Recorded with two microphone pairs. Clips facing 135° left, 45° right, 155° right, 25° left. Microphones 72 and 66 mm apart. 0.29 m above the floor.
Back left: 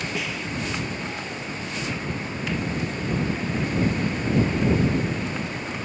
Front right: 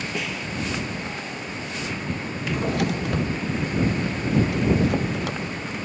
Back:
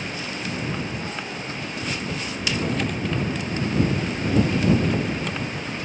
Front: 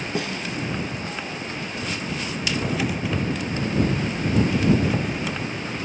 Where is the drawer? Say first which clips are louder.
Front right 4 dB, even; 60° right.